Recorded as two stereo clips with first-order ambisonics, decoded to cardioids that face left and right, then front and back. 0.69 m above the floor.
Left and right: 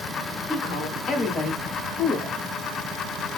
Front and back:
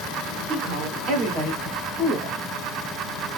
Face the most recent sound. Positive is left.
turn(degrees=165)